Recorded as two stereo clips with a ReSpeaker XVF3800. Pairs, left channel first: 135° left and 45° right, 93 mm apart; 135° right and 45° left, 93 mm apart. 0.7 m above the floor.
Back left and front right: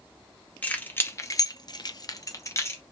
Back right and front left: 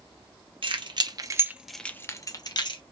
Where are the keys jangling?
60° left, 0.9 m; by 2.8 s 165° right, 1.0 m.